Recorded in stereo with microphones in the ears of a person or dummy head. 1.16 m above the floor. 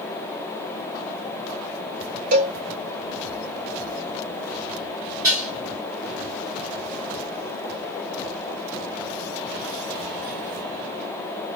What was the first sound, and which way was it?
A cowbell, 45° right (ahead or behind).